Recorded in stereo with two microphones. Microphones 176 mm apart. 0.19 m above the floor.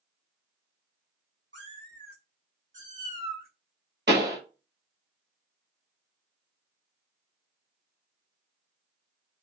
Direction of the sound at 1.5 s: 85° right.